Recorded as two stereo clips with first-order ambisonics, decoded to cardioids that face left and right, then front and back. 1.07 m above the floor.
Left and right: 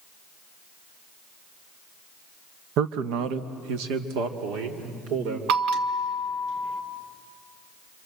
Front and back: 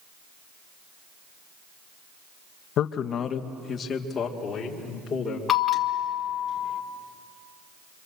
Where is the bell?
65° right, 1.5 m.